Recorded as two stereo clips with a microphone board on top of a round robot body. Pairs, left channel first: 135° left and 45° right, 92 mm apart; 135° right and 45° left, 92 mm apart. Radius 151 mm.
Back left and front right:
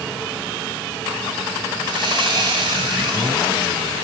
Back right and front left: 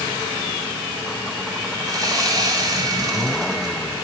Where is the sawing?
5° right, 2.5 m.